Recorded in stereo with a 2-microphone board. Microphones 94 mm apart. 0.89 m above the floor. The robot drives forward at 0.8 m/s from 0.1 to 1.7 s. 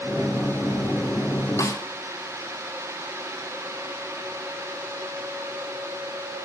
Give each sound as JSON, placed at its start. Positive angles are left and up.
{"t": 1.6, "sound": "a snare drum", "side_deg": 35, "distance_m": 1.8}